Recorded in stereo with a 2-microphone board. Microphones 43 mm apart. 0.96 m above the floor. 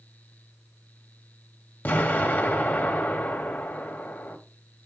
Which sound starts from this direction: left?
An explosion, at 1.9 s.